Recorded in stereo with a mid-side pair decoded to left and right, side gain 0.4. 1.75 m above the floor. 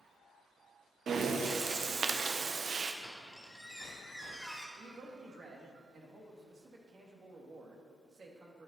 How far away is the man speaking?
About 2.5 m.